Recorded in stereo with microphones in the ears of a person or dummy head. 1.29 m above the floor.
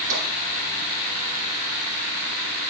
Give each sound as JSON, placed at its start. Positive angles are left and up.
{"t": 0.1, "sound": "tapping", "side_deg": -70, "distance_m": 5.0}